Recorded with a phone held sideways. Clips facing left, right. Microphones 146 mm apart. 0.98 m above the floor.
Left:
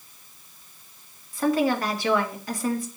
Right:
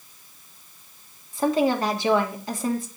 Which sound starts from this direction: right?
A woman speaking, at 1.3 s.